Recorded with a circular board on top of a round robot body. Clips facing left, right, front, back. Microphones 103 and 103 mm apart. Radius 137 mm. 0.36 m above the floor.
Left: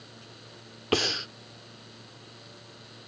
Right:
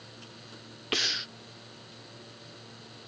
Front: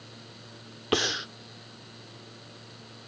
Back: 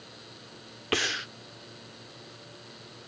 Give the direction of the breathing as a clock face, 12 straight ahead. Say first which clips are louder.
Left 8 dB, front 3 dB; 10 o'clock.